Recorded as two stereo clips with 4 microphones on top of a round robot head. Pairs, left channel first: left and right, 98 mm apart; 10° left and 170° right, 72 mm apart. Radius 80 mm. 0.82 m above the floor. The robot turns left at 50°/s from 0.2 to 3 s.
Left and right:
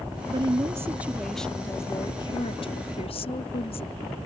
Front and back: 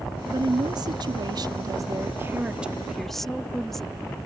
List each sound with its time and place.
0.3 s a woman speaking: 130° right; by 4.2 s 95° left